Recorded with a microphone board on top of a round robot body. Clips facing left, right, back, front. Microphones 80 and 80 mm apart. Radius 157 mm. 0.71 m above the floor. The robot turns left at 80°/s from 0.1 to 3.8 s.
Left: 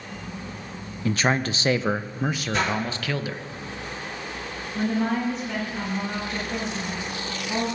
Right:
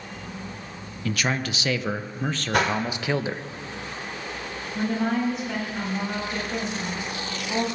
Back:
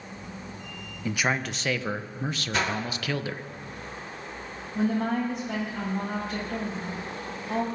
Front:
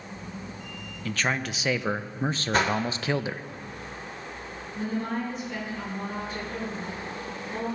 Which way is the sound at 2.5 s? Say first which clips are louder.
Right 4 dB, front 4 dB; 50° right.